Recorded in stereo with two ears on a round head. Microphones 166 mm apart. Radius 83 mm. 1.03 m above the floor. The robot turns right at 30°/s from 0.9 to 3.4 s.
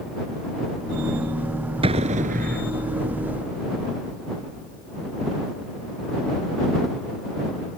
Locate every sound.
1.8 s an explosion: 30° right (ahead or behind); by 2.7 s 60° right (ahead or behind)